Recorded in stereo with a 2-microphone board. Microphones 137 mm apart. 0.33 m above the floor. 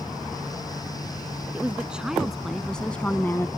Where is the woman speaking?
10° right (ahead or behind); by 3.5 s 20° left (ahead or behind).